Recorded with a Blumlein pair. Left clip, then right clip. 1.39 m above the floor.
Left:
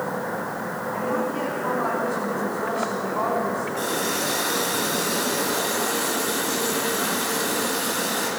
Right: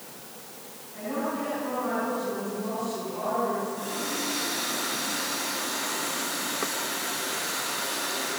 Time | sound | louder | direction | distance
0.9 | a woman speaking | left 4 dB | 60° left | 9.5 m
3.8 | a running tap | left 7 dB | 30° left | 8 m